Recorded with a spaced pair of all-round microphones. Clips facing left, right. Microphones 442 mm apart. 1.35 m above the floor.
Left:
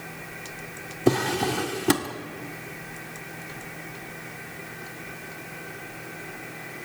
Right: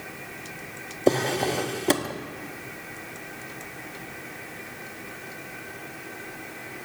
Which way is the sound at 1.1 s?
25° left (ahead or behind).